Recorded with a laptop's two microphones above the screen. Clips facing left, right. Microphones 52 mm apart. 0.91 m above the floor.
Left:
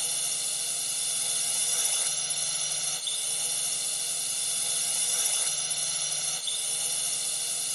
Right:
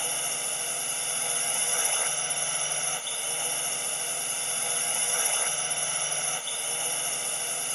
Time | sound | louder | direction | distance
0.0 | a drone | right 5 dB | 35° right (ahead or behind) | ?